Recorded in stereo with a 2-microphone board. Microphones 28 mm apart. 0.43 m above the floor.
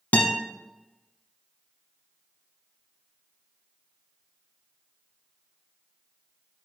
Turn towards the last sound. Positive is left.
turn(degrees=75)  # may be behind; listen again after turning